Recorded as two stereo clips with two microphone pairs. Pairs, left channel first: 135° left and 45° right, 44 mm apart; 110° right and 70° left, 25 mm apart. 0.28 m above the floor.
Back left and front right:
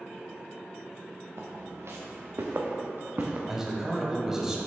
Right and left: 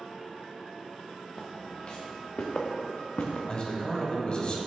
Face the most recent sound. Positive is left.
turn(degrees=-115)